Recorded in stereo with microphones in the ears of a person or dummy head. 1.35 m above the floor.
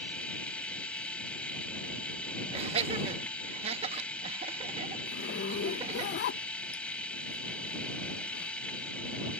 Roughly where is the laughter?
Right.